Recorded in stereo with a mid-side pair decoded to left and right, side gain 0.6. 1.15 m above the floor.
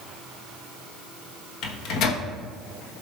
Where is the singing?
No singing in this recording.